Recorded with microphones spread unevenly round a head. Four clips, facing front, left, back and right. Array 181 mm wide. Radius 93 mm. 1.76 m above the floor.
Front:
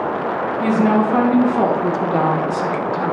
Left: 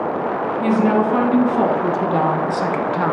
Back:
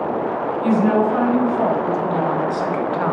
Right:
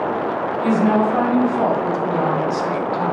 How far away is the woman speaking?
About 3.5 m.